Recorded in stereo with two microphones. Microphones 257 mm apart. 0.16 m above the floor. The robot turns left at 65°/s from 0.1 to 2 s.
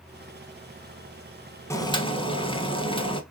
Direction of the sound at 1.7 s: 10° left (ahead or behind).